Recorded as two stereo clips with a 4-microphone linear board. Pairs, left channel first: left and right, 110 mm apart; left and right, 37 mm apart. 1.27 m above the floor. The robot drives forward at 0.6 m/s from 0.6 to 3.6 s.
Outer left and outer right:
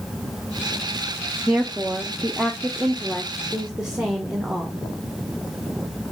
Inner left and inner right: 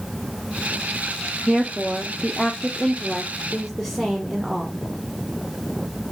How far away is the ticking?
I don't hear ticking.